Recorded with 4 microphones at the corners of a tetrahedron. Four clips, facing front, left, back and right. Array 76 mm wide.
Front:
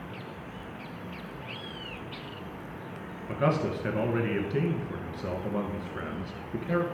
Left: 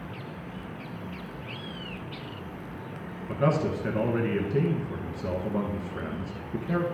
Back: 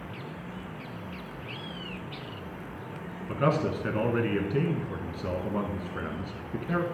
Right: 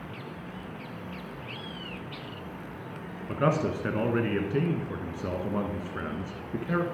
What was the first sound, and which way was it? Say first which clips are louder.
A man speaking: left 1 dB, back 1 dB; 105° right.